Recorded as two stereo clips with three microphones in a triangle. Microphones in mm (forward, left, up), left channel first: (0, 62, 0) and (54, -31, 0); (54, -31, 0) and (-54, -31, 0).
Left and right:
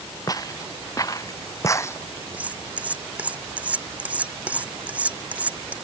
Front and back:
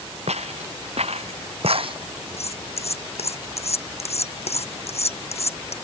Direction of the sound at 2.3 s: 15° left.